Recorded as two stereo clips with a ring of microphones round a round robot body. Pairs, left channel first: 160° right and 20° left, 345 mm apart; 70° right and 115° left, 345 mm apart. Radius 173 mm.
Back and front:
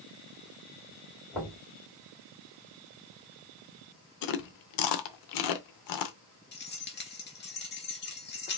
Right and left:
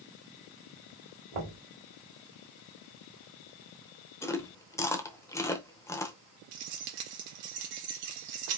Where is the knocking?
110° left, 2.5 m.